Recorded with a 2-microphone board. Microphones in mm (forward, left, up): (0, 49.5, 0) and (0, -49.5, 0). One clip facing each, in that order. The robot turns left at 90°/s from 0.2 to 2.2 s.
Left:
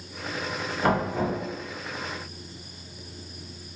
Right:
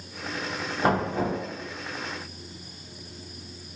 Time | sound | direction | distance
0.8 | knocking | 25° right (ahead or behind) | 1.3 m